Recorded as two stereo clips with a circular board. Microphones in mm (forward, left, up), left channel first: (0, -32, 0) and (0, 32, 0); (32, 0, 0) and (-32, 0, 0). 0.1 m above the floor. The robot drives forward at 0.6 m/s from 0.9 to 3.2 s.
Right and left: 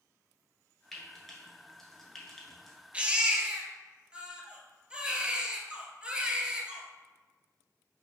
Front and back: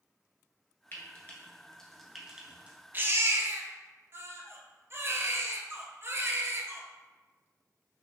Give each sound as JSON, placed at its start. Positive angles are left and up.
{"t": 0.9, "sound": "frying", "azimuth_deg": -5, "distance_m": 1.1}
{"t": 2.9, "sound": "a baby crying", "azimuth_deg": 150, "distance_m": 0.6}